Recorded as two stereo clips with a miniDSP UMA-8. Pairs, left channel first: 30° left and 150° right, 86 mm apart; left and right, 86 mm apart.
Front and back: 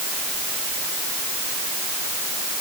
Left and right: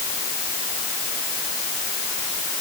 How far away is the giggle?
I don't hear a giggle.